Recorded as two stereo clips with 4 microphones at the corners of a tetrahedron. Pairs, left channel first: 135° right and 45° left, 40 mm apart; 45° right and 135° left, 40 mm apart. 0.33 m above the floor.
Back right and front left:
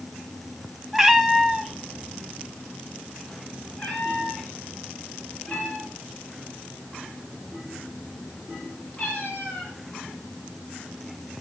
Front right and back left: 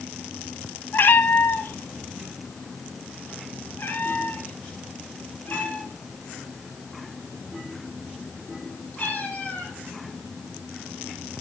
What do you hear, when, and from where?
0.9 s a cat meowing: 35° right, 1.3 m; by 9.7 s 85° right, 6.5 m